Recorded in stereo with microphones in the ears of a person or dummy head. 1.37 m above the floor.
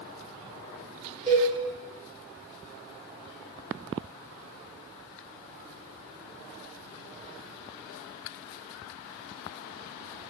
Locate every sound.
1.3 s a cowbell: 35° right (ahead or behind), 1.3 m